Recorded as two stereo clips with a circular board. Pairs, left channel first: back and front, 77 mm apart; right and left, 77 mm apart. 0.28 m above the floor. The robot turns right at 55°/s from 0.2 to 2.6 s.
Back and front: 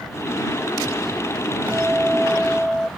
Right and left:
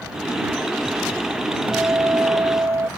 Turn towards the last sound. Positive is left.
turn(degrees=95)